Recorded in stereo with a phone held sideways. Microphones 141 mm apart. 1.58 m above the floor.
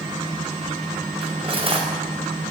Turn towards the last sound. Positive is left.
turn(degrees=-40)  # may be behind; listen again after turning